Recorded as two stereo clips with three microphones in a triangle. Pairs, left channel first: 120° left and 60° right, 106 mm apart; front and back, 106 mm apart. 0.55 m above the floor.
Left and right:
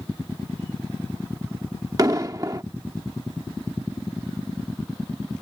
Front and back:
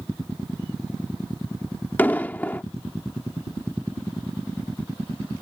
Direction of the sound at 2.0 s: 60° right.